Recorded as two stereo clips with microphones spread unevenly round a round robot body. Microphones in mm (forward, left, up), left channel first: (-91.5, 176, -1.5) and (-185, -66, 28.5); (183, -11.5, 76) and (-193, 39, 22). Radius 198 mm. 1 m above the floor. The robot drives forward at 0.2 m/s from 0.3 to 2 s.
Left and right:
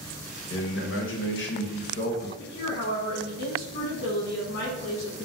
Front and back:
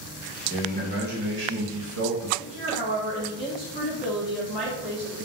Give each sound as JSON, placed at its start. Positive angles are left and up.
{"t": 0.5, "sound": "a man speaking", "azimuth_deg": 105, "distance_m": 0.9}
{"t": 2.4, "sound": "a woman speaking", "azimuth_deg": 115, "distance_m": 1.0}